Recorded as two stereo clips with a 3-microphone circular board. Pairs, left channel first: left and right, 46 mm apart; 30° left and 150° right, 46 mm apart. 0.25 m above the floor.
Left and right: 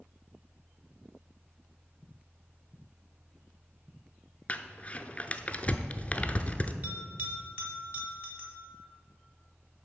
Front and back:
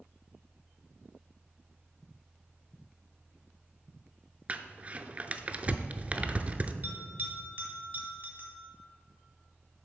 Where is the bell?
115° right, 2 m.